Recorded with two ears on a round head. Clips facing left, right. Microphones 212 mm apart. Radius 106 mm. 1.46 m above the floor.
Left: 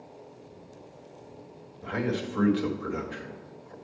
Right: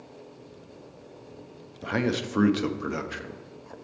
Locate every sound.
1.8 s a man speaking: 60° right (ahead or behind), 0.7 m